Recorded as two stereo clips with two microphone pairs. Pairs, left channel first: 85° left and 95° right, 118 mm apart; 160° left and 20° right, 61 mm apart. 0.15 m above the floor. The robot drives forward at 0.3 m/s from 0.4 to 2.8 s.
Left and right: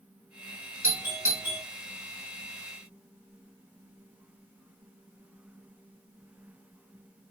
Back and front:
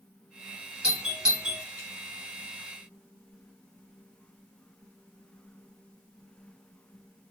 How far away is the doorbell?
About 1.6 m.